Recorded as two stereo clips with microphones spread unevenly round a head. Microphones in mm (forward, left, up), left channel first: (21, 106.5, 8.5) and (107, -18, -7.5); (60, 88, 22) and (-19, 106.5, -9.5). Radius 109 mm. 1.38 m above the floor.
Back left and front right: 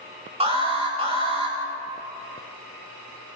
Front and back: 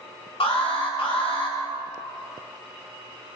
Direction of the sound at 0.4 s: 5° right.